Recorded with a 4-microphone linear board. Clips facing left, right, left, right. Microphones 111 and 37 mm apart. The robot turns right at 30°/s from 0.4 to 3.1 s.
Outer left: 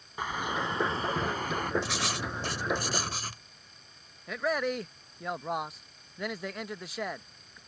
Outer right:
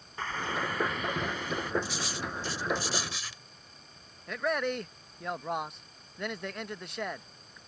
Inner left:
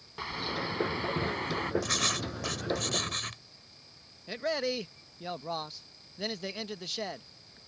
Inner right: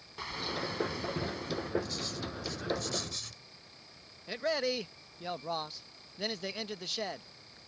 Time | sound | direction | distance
0.2 | a bird | 15° left | ?
1.8 | writing | 95° left | ?
4.3 | a man speaking | centre (ahead or behind) | ?